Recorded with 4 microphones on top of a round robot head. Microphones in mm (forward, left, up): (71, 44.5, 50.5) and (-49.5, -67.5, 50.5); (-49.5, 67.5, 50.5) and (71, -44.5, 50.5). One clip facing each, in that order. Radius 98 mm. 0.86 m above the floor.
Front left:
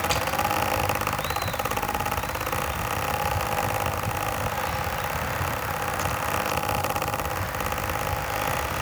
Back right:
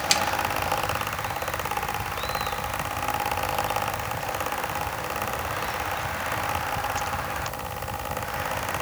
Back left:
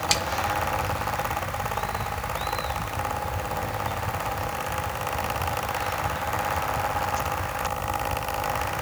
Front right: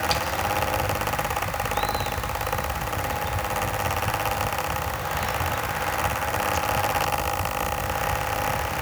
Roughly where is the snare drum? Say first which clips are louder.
Even, front right 2 dB; behind.